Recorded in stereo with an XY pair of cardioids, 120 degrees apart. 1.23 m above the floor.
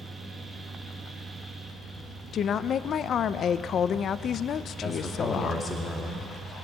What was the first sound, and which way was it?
A fan, 15° right.